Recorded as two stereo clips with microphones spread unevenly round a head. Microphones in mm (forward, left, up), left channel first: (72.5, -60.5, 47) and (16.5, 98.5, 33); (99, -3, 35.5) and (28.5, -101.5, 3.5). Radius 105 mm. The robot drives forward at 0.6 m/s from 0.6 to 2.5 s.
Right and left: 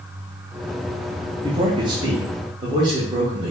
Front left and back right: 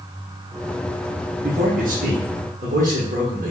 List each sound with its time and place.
1.4 s a man speaking: straight behind, 0.5 m